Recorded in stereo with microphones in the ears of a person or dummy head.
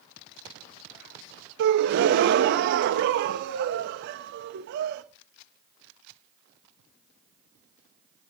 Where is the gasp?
50° right (ahead or behind), 0.7 m.